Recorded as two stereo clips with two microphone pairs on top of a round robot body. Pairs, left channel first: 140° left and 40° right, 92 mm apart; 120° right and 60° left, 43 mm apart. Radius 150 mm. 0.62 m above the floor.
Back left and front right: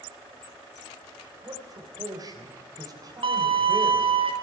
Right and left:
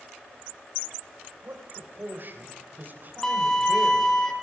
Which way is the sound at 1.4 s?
10° left.